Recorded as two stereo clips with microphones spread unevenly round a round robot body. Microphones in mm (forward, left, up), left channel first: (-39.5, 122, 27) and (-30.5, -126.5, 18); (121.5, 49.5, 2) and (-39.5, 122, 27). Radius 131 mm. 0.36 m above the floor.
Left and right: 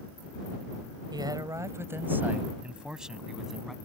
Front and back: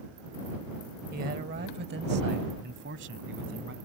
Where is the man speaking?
155° right; by 3.8 s straight behind.